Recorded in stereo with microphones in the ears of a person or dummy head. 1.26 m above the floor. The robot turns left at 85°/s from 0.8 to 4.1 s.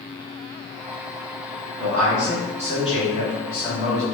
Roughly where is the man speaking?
Behind right.